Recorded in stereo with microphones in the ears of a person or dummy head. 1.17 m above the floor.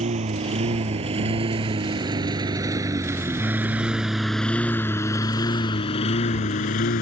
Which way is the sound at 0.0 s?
35° right (ahead or behind).